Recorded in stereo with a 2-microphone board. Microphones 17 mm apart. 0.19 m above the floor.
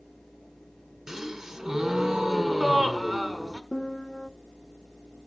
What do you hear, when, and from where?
1.1 s a gasp: 40° right (ahead or behind), 1.1 m
3.7 s a piano: 50° left (ahead or behind), 0.6 m